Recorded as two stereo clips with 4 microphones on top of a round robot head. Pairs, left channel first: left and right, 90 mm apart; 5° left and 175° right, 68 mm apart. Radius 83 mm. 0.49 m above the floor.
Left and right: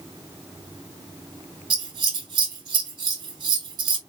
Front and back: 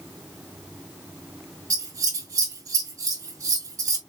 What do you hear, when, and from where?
1.7 s scissors: 135° right, 2.5 m